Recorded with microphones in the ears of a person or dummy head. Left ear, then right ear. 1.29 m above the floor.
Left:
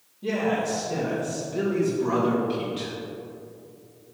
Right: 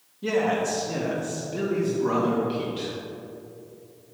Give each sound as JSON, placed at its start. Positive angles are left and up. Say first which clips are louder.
{"t": 0.2, "sound": "a man speaking", "louder": "right 2 dB", "side_deg": -60, "distance_m": 1.9}